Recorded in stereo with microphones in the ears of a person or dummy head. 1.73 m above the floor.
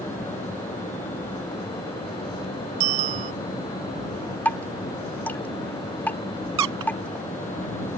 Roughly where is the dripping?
Centre.